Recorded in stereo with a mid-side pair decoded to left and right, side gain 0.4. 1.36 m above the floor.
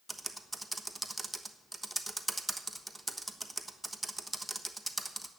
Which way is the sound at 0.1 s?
15° right.